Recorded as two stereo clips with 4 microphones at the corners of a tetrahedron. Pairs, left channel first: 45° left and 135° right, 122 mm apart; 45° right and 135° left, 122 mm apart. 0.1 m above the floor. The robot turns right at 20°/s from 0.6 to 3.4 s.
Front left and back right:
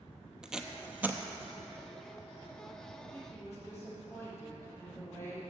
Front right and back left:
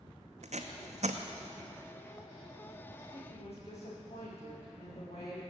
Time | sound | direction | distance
0.4 | tape being pulled | 140° left | 0.7 m
3.1 | a woman speaking | 25° right | 4 m